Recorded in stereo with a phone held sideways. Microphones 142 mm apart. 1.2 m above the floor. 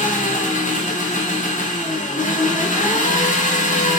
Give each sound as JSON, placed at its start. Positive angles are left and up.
{"t": 0.0, "sound": "an engine running", "side_deg": 65, "distance_m": 0.8}